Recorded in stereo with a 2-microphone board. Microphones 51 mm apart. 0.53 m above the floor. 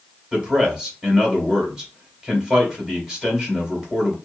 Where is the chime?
I don't hear a chime.